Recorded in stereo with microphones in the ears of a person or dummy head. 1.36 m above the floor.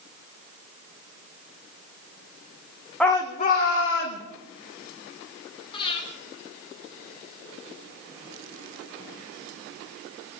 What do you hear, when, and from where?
3.0 s a shout: 5° left (ahead or behind), 0.9 m; by 4.2 s 65° left (ahead or behind), 2 m
5.7 s breathing: 30° left (ahead or behind), 3 m